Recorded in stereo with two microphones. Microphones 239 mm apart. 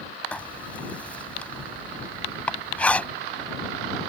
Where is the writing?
5° left (ahead or behind).